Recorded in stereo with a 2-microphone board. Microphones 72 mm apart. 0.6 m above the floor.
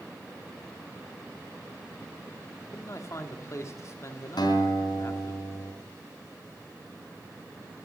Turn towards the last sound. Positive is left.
turn(degrees=85)